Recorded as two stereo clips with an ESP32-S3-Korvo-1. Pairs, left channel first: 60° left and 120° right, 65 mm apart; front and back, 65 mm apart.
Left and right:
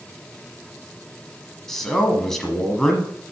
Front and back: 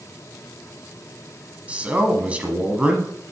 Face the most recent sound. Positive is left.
turn(degrees=140)